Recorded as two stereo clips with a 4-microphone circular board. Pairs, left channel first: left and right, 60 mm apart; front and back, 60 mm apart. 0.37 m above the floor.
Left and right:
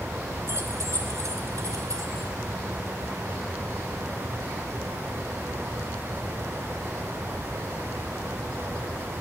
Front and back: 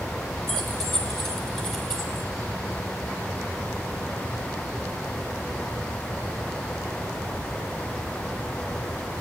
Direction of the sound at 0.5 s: 80° right.